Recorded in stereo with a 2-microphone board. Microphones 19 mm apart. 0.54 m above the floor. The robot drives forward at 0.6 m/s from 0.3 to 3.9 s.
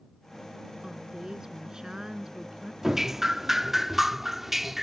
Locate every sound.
0.8 s a woman speaking: 30° right (ahead or behind); by 2.7 s 35° right (ahead or behind)
2.8 s dripping: 20° right (ahead or behind); by 4.8 s 15° right (ahead or behind)